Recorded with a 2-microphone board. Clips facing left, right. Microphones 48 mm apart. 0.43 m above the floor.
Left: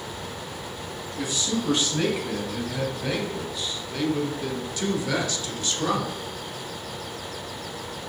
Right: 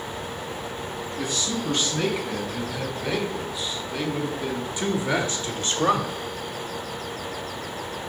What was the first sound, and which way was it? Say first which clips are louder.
A man speaking: left 1 dB; 5° left (ahead or behind).